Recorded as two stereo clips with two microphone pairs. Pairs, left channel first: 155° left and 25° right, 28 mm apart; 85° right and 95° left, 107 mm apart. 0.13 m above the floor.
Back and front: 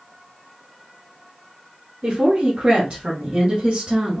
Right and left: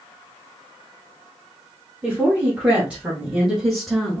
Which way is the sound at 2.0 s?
20° left.